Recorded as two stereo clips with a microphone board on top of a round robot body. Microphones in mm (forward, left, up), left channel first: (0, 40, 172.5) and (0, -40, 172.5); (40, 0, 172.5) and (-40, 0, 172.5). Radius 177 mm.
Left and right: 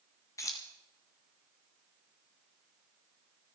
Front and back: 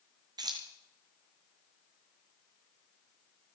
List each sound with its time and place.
0.4 s keys jangling: 140° left, 0.6 m